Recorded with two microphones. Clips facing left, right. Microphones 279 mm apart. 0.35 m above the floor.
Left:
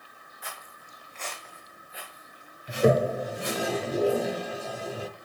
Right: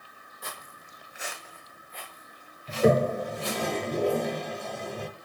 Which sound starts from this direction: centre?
A toilet flushing, at 2.7 s.